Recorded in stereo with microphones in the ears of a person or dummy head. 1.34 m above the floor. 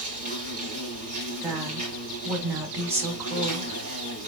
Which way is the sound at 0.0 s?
45° right (ahead or behind).